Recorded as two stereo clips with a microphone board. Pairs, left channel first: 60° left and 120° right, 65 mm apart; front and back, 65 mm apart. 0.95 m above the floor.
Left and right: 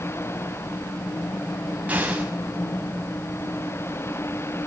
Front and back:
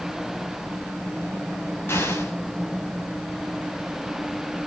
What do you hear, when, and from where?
1.9 s an explosion: 50° right, 6 m